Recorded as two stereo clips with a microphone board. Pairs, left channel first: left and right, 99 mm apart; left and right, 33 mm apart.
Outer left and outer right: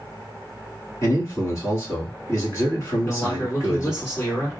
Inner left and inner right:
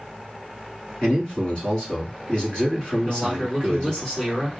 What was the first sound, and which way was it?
A man speaking, 30° left (ahead or behind).